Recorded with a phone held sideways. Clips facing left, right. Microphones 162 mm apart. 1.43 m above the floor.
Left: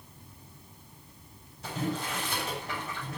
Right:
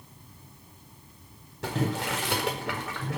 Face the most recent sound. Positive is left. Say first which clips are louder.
# right 4 dB
turn(degrees=-80)